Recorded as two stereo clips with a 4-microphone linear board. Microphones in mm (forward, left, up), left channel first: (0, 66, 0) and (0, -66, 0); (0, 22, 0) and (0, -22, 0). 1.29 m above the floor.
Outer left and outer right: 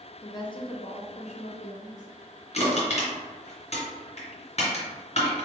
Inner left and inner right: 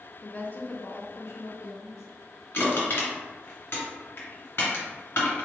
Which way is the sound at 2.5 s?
55° left (ahead or behind).